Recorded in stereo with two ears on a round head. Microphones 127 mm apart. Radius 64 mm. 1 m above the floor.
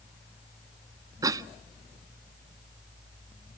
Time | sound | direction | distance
1.2 | a cough | 25° right (ahead or behind) | 0.7 m